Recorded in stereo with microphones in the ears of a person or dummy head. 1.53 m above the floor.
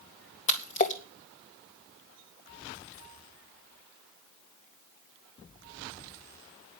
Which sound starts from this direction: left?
A splash, at 0.5 s.